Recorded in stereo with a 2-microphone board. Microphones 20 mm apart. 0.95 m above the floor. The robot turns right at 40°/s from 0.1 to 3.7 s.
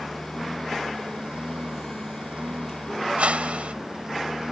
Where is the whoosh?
75° right (ahead or behind).